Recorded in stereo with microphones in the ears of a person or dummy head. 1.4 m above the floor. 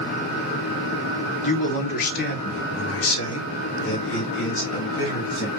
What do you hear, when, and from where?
1.4 s a man speaking: 40° left (ahead or behind), 1.4 m; by 5.5 s 30° left (ahead or behind), 1.8 m